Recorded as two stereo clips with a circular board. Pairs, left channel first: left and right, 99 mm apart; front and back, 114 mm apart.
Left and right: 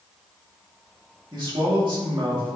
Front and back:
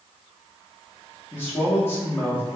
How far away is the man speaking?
About 1.8 m.